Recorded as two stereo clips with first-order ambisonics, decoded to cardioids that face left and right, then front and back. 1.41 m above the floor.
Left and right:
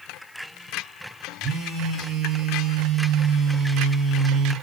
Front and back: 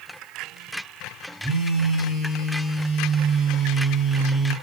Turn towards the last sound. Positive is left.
turn(degrees=-25)